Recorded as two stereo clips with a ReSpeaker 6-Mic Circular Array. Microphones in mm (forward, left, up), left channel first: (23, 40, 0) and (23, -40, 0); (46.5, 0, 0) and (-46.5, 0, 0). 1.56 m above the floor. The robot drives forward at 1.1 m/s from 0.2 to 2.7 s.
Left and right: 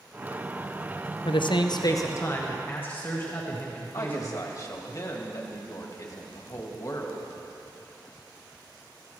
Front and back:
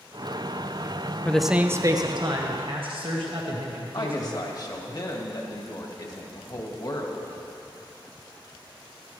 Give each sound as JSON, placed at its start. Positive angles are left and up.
{"t": 1.2, "sound": "a man speaking", "azimuth_deg": 75, "distance_m": 0.7}
{"t": 3.9, "sound": "a woman speaking", "azimuth_deg": 45, "distance_m": 1.8}